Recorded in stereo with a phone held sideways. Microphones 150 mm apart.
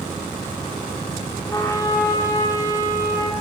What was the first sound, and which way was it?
A trumpet, 20° left (ahead or behind).